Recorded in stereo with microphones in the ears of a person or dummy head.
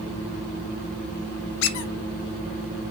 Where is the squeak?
75° left (ahead or behind), 0.8 m.